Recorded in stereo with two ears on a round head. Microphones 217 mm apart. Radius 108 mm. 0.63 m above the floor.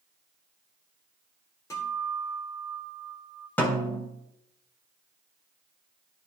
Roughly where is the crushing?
I don't hear crushing.